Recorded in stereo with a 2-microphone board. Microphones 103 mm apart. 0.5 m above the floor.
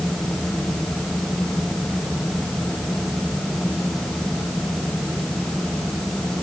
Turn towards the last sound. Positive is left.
No sound to turn to.